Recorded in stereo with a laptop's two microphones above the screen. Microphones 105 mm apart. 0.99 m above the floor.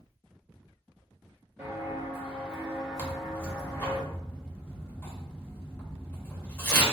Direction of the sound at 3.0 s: 20° left (ahead or behind).